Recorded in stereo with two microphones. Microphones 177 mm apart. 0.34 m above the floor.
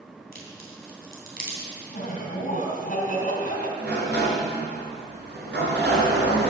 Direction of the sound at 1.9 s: 50° left (ahead or behind).